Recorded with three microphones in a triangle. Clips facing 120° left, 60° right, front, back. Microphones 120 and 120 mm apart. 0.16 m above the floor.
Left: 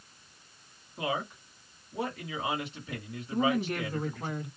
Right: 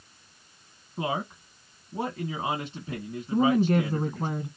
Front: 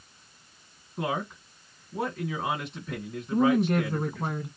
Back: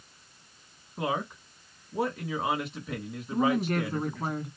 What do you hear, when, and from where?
1.0 s a man speaking: 105° right, 2 m
3.3 s a woman speaking: 90° right, 1.9 m